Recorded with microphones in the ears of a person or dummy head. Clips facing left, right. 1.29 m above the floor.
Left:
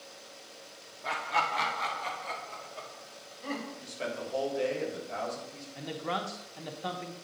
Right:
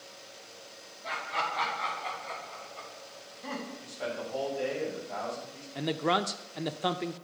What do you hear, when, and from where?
1.0 s laughter: 75° left (ahead or behind), 1.6 m; by 3.7 s 50° left (ahead or behind), 4 m
3.8 s a man speaking: 50° left (ahead or behind), 3.5 m
5.8 s a man speaking: 55° right (ahead or behind), 0.5 m